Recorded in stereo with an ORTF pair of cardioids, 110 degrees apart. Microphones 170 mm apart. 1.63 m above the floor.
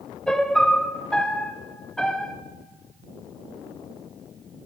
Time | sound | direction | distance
0.3 | a piano | 5° left | 0.8 m